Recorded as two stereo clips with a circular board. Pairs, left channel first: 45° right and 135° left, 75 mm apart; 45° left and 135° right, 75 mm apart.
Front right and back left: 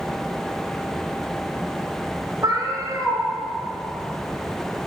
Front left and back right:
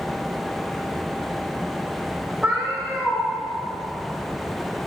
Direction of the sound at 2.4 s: 160° left.